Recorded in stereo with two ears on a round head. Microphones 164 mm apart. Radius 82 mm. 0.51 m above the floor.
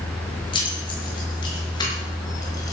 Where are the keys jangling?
25° left (ahead or behind), 6 m; by 2.7 s 20° left (ahead or behind), 4 m.